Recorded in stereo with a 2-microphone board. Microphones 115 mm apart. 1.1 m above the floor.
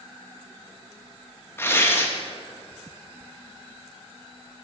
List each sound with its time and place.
1.6 s tearing paper: 20° left (ahead or behind), 1.7 m